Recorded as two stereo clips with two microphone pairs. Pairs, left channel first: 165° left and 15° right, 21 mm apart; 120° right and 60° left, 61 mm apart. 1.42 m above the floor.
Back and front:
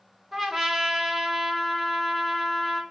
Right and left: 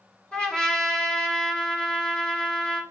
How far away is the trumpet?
About 1.2 m.